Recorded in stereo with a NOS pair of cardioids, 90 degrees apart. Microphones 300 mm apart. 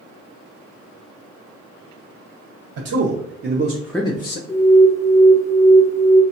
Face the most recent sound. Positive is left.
turn(degrees=10)